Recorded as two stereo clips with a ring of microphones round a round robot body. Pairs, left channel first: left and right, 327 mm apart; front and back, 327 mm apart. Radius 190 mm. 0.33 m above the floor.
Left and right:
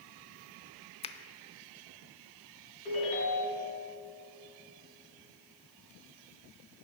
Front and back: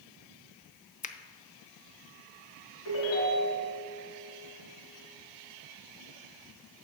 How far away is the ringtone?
About 3 m.